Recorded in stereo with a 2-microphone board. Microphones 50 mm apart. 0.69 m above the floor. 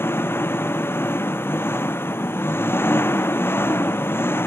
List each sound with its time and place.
0.0 s an engine running: 50° left (ahead or behind)